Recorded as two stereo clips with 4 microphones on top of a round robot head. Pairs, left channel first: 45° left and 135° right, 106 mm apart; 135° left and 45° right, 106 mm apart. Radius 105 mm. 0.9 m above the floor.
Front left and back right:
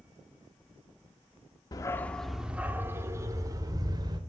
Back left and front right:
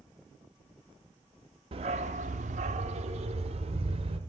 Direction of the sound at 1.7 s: 10° right.